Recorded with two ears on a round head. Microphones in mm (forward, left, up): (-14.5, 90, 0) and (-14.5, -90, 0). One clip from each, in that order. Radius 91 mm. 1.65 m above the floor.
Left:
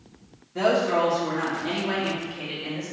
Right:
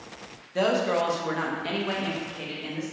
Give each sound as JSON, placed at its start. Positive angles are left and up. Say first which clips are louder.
{"t": 0.6, "sound": "a woman speaking", "louder": "left 2 dB", "side_deg": -80, "distance_m": 0.9}